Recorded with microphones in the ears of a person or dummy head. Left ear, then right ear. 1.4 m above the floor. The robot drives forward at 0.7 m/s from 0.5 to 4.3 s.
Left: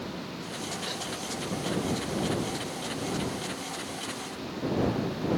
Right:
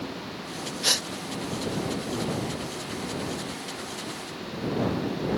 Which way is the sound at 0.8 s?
60° right (ahead or behind).